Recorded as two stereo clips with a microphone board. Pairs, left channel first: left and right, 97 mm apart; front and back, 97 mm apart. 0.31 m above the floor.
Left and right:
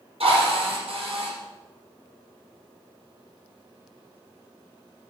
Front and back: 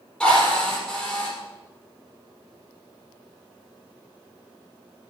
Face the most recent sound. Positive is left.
turn(degrees=-80)